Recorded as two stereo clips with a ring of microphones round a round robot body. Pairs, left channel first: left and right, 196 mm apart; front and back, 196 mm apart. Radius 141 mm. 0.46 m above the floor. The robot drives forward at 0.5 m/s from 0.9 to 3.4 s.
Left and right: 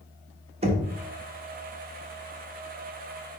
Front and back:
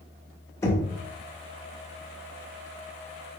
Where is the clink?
I don't hear a clink.